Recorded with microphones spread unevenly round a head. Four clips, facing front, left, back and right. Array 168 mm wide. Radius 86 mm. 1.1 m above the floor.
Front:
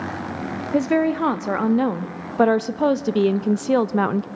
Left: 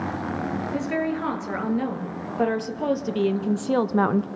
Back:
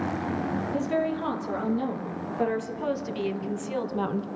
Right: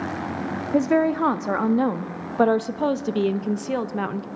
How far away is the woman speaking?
About 2.5 m.